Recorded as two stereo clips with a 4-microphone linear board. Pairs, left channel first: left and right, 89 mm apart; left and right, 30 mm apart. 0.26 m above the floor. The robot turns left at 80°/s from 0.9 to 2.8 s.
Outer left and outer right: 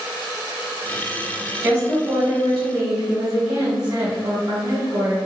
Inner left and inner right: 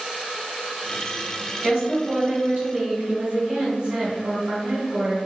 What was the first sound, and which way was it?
A woman speaking, 10° right.